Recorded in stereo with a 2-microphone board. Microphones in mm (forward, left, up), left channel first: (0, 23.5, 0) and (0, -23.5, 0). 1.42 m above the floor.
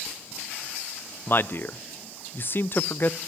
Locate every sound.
1.3 s a man speaking: 45° left (ahead or behind), 0.5 m